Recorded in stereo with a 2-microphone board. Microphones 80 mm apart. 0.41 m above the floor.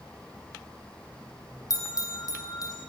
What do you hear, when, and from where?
1.7 s a bell: 45° left (ahead or behind), 5 m